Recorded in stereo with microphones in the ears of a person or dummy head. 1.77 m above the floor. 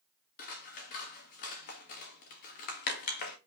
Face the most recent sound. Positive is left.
turn(degrees=50)  # may be behind; listen again after turning